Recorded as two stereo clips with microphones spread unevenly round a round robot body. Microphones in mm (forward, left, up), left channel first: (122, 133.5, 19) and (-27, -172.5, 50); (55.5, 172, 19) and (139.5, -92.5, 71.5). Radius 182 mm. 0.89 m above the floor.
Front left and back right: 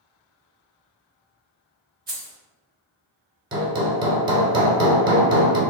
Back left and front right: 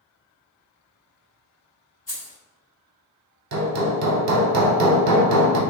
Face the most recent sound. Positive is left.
turn(degrees=-35)